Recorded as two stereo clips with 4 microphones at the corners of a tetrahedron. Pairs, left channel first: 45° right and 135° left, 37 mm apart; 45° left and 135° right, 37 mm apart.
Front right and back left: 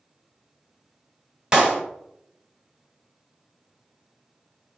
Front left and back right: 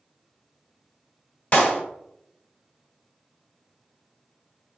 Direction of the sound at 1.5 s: 70° left.